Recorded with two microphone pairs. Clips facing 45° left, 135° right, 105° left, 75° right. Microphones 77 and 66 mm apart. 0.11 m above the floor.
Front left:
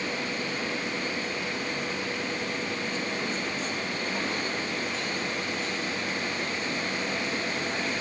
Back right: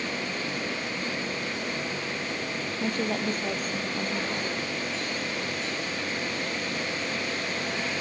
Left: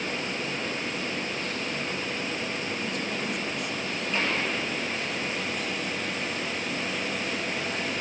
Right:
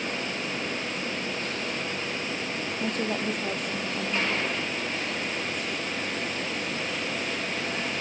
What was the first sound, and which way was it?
A woman speaking, 110° right.